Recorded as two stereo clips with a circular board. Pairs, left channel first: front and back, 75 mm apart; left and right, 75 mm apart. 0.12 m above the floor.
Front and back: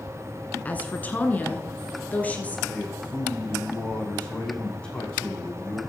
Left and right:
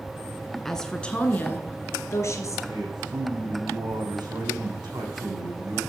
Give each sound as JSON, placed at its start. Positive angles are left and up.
{"t": 0.7, "sound": "a woman speaking", "azimuth_deg": 10, "distance_m": 1.6}
{"t": 2.7, "sound": "a man speaking", "azimuth_deg": -75, "distance_m": 7.0}